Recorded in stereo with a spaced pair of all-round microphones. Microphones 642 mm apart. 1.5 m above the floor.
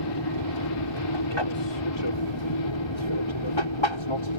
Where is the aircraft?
40° left (ahead or behind); by 4.4 s 45° left (ahead or behind).